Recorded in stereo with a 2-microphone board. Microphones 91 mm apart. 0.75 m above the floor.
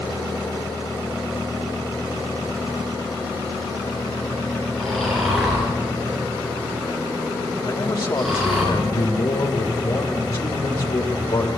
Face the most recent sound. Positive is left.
turn(degrees=60)  # may be behind; listen again after turning